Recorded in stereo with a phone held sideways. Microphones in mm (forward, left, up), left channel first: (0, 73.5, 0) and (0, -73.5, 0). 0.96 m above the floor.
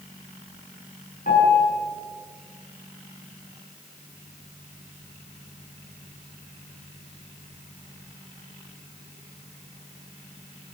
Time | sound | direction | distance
1.3 | a piano | 80° left | 9 m